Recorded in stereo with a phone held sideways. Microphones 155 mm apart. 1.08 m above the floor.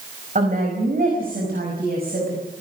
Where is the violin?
I don't hear a violin.